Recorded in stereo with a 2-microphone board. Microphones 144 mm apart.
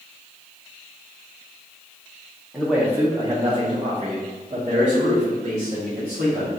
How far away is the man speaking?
About 0.8 m.